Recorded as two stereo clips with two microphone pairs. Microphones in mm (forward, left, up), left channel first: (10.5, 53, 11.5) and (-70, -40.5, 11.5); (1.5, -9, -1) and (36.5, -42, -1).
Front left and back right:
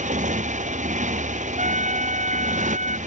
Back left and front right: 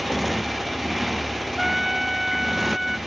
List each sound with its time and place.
0.0 s a motorcycle: 130° right
1.6 s a trumpet: 125° right